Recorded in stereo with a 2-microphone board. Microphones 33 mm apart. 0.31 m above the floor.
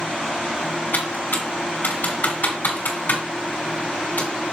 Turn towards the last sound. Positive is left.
turn(degrees=55)  # may be behind; listen again after turning